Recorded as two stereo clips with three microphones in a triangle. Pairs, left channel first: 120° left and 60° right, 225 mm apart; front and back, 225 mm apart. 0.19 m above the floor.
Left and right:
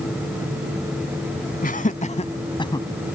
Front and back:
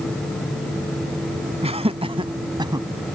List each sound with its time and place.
1.6 s laughter: 135° left; by 2.9 s 155° left